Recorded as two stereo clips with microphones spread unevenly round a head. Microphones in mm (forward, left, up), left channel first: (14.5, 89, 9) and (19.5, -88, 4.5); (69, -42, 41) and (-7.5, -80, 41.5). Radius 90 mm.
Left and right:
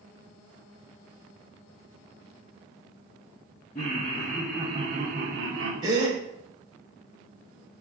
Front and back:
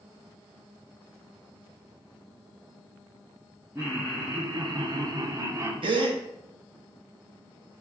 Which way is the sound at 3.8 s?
140° left.